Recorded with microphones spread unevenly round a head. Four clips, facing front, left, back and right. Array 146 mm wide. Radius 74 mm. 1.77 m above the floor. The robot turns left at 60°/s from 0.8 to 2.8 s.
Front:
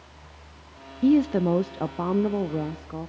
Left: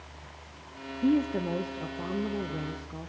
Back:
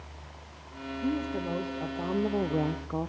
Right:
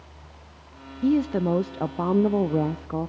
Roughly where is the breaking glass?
No breaking glass in this recording.